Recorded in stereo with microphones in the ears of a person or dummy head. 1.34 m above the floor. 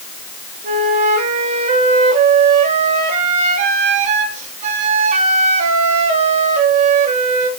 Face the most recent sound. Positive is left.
turn(degrees=-40)  # may be behind; listen again after turning